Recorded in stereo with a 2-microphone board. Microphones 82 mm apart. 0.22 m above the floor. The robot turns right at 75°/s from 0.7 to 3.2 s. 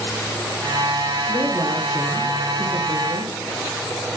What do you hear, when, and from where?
1.3 s a woman speaking: 145° left, 5 m; by 3.3 s 70° right, 5 m